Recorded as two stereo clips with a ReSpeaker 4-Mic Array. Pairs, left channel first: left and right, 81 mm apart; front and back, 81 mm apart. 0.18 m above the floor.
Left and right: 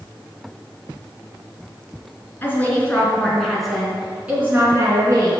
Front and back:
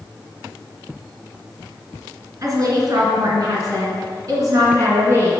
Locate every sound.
2.4 s a woman speaking: 150° left, 2.5 m; by 5.3 s 130° right, 2.5 m